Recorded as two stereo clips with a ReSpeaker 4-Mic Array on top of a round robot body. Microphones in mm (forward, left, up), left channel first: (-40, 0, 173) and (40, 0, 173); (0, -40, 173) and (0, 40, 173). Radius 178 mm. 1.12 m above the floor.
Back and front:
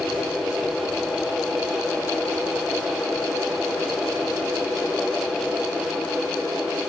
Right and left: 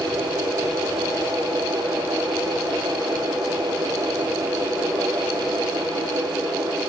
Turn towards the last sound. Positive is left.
No sound to turn to.